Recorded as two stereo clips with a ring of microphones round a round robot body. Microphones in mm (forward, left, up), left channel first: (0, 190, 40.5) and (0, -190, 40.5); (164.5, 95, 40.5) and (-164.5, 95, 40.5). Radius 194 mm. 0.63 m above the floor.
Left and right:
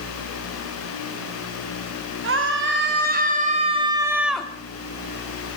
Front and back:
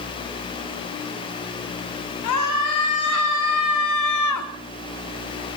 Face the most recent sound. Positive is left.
turn(degrees=5)